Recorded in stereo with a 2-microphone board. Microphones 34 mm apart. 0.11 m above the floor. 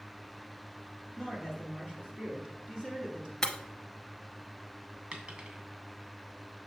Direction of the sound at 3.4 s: 20° left (ahead or behind).